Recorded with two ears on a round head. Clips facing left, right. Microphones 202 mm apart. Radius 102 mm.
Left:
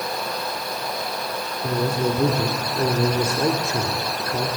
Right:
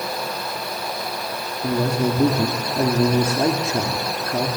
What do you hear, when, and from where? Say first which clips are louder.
1.6 s a man speaking: right 2 dB; 25° right (ahead or behind), 2 m